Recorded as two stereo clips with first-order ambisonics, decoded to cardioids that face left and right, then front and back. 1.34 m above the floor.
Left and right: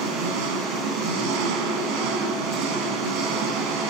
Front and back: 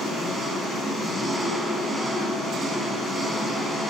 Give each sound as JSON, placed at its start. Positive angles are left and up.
{"t": 0.0, "sound": "an engine running", "azimuth_deg": -100, "distance_m": 4.5}